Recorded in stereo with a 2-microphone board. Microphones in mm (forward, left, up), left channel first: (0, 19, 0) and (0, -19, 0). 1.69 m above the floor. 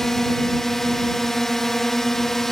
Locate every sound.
0.0 s a drone: 10° left (ahead or behind)